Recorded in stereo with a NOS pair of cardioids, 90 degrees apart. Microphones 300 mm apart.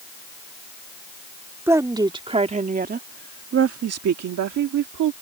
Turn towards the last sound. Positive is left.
turn(degrees=-80)